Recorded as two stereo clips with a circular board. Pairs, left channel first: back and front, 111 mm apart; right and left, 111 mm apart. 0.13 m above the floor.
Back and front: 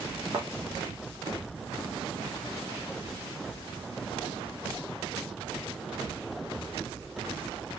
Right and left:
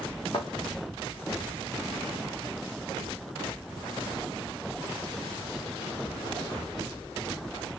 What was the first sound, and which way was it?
A thud, 50° right.